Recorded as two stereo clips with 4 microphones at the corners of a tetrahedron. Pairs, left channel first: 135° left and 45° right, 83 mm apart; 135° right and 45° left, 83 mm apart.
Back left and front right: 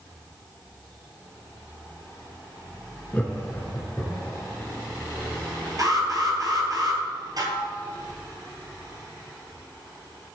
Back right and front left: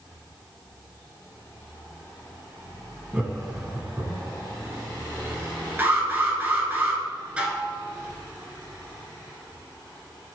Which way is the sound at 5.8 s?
20° right.